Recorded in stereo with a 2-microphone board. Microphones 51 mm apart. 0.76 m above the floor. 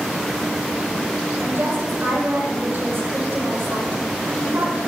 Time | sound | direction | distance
1.4 | a woman speaking | 60° right (ahead or behind) | 9.5 m